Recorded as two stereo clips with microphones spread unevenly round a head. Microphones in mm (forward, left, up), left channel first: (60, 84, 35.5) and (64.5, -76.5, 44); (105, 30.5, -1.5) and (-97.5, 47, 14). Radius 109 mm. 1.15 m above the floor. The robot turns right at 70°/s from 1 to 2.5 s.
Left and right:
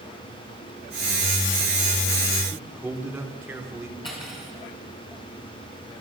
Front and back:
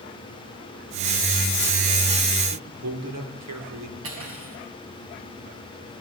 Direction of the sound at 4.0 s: 160° left.